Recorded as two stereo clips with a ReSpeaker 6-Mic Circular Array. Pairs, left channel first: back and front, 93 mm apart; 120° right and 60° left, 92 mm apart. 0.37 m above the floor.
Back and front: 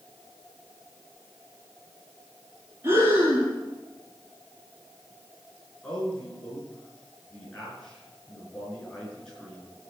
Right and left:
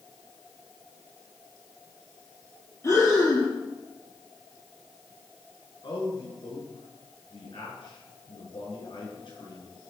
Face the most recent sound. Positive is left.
turn(degrees=-100)